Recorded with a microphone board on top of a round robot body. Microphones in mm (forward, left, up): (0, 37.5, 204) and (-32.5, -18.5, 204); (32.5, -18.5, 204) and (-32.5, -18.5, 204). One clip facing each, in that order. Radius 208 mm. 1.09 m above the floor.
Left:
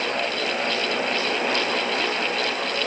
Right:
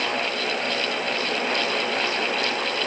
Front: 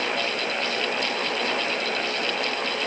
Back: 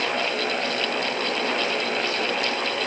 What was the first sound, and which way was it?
Only background noise.